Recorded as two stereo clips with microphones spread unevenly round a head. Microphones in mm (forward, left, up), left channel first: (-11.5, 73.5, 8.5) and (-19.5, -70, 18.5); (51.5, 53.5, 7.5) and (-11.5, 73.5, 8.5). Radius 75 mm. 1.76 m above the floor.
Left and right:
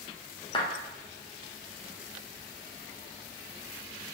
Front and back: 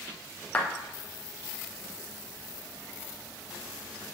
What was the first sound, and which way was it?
A clap, 35° left.